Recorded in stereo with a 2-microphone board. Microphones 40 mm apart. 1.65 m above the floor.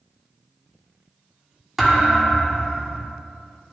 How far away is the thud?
About 1.2 m.